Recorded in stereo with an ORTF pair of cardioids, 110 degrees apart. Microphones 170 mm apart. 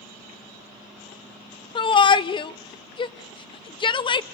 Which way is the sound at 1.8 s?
30° left.